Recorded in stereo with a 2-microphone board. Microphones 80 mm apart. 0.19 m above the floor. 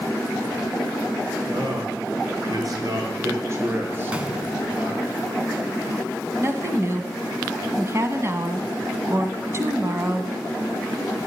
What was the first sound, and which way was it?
A man speaking, 65° right (ahead or behind).